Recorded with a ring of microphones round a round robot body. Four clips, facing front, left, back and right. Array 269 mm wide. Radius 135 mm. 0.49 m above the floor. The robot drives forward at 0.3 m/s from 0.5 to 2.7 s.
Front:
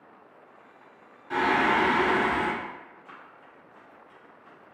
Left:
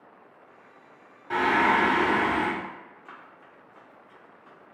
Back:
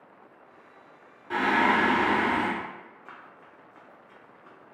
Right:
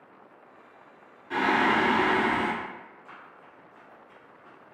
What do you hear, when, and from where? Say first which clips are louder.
1.3 s singing: left 2 dB, even; 110° left, 1.5 m; by 2.5 s 125° left, 1.6 m
3.0 s running footsteps: even, back 1 dB; 165° left, 1.2 m; by 4.7 s 160° right, 2.0 m